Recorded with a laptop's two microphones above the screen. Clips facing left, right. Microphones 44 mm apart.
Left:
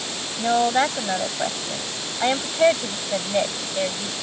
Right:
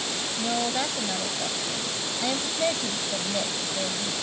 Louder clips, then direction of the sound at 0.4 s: Left 9 dB; 45° left (ahead or behind).